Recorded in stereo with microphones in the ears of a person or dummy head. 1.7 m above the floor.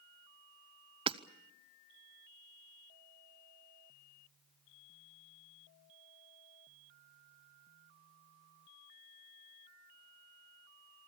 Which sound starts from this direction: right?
Hammering, at 1.1 s.